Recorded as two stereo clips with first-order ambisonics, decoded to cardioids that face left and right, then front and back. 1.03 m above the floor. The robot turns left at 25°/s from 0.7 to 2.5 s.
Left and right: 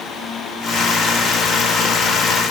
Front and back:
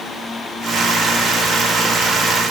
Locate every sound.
Only background noise.